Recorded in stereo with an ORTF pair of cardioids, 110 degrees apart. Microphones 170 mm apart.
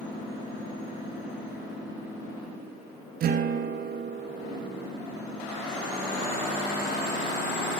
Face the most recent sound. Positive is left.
turn(degrees=-65)